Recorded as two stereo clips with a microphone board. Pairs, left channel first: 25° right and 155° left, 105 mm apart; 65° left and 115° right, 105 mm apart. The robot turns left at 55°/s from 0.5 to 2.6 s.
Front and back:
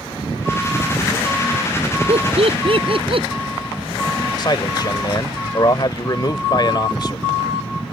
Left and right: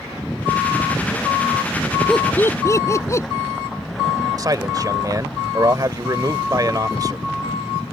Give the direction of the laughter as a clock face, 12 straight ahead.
7 o'clock.